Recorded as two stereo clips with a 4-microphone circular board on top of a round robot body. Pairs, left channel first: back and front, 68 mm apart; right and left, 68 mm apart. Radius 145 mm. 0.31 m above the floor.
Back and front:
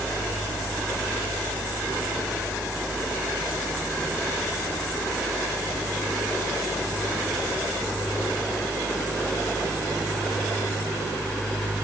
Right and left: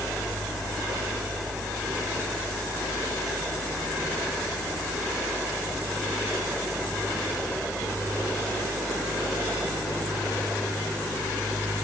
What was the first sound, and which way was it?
Only background noise.